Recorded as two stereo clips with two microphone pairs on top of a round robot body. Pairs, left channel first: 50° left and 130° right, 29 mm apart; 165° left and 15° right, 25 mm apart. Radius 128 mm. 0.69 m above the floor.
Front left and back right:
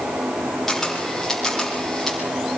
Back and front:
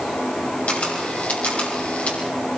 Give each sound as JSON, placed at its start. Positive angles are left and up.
{"t": 0.7, "sound": "a camera shutter", "azimuth_deg": 130, "distance_m": 6.5}